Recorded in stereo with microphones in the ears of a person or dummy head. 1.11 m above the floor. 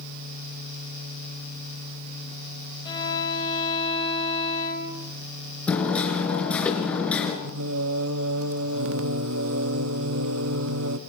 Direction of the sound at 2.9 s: 25° left (ahead or behind).